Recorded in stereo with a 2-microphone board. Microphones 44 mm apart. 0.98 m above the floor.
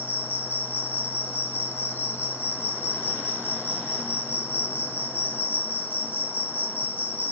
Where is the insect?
50° left (ahead or behind), 1.5 m.